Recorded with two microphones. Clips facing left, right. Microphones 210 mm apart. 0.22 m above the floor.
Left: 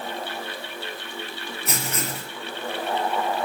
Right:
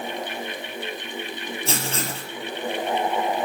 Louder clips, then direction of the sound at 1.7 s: Right 1 dB; 30° right (ahead or behind).